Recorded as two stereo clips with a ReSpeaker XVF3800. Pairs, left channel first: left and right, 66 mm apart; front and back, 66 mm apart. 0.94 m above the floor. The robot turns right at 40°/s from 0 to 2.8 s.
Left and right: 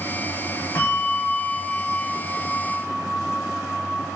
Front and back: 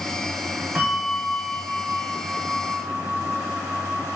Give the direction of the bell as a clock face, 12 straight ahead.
8 o'clock.